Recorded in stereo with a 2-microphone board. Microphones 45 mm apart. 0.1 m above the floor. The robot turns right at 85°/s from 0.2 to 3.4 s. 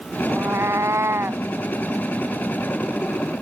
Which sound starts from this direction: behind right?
A cat meowing, at 0.3 s.